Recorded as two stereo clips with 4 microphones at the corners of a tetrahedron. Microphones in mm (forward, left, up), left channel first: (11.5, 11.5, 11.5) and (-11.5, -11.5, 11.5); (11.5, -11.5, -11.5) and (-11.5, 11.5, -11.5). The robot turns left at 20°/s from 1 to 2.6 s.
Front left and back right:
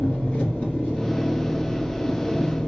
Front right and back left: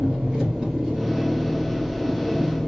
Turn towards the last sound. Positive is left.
turn(degrees=35)